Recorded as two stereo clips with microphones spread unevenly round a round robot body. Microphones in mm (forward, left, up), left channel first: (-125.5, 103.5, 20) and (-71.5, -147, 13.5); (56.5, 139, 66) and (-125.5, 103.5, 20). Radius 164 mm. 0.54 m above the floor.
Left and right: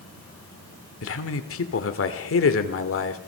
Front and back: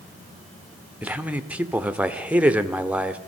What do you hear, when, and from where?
1.0 s a man speaking: 120° left, 2 m